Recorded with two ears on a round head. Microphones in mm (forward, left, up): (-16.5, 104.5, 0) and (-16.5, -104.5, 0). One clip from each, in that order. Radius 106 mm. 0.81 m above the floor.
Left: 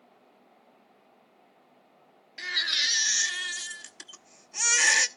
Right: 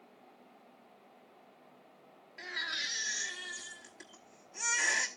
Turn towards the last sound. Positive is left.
turn(degrees=70)  # may be behind; listen again after turning